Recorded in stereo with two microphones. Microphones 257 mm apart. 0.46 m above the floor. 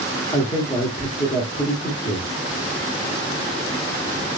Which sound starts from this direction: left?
A man speaking, at 0.3 s.